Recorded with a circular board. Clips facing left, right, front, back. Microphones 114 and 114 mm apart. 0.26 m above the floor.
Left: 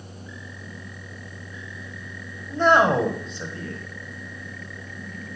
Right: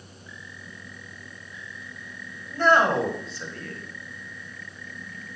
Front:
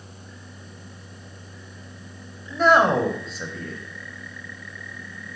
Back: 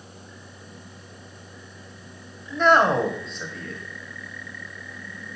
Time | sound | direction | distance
2.5 | a man speaking | 75° left | 1.1 m